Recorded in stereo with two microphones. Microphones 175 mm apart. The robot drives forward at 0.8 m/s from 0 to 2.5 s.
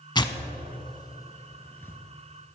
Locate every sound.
0.1 s tearing paper: 25° left (ahead or behind), 0.6 m; by 2.0 s 10° left (ahead or behind), 1.2 m